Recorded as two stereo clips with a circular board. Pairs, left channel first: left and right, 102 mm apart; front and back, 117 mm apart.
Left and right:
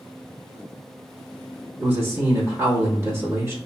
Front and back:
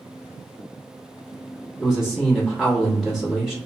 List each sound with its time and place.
1.8 s a man speaking: 100° right, 1.1 m